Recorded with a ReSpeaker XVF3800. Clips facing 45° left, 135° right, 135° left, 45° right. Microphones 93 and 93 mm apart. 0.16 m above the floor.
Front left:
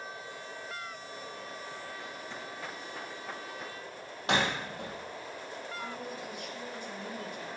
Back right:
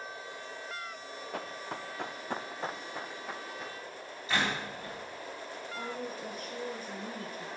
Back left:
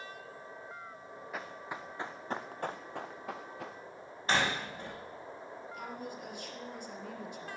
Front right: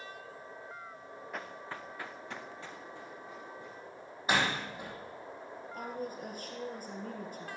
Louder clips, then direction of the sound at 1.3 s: Back right 3 dB, back left 1 dB; 140° right.